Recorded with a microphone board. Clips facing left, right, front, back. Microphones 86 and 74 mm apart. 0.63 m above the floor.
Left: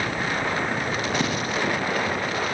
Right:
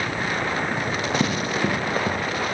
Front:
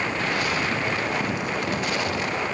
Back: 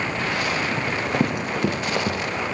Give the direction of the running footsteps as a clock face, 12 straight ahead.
5 o'clock.